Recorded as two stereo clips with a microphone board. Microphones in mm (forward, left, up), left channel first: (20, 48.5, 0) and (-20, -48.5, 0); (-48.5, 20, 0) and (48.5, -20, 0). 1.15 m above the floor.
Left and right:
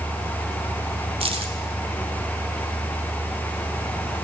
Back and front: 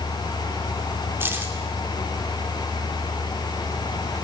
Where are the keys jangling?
90° right, 2.5 m.